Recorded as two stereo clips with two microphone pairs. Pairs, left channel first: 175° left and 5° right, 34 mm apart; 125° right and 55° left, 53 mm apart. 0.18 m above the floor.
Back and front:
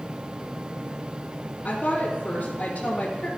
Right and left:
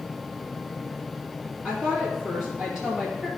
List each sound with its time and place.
1.6 s a woman speaking: 130° left, 3 m